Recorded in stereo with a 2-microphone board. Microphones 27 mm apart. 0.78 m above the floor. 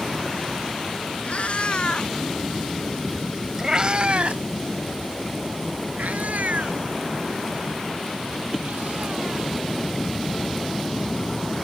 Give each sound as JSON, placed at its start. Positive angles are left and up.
{"t": 1.2, "sound": "a cat meowing", "side_deg": 55}